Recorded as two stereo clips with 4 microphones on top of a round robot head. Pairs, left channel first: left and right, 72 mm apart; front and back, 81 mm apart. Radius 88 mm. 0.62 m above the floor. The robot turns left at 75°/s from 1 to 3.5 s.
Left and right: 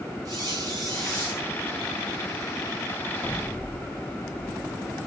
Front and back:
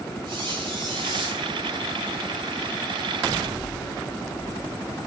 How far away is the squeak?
About 6.5 m.